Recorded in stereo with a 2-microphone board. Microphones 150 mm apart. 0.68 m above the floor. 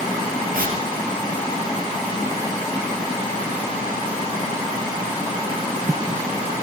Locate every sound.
0.5 s tearing paper: 75° right (ahead or behind), 3.5 m